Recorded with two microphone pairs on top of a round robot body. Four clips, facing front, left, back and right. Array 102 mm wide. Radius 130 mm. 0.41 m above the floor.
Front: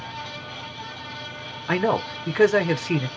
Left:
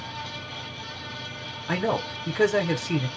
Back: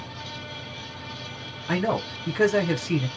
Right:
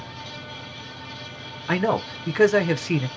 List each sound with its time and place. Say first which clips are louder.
1.7 s a man speaking: right 3 dB, front 3 dB; 30° right, 0.8 m